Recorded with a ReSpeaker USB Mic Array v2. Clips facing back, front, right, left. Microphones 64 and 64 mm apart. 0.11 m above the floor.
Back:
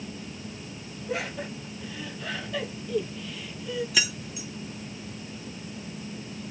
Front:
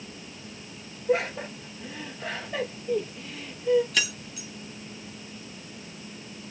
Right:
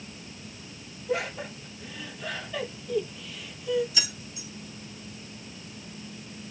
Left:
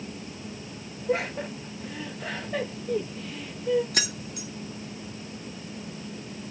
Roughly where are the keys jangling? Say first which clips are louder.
Back 1 dB, left 5 dB; left.